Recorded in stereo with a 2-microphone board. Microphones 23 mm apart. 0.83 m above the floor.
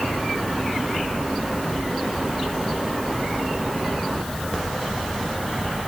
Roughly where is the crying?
I don't hear crying.